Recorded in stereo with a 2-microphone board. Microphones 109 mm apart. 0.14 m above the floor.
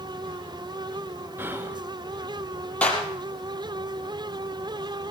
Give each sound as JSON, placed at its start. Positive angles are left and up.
{"t": 1.4, "sound": "whispering", "side_deg": -20, "distance_m": 1.6}
{"t": 2.8, "sound": "a clap", "side_deg": 10, "distance_m": 4.0}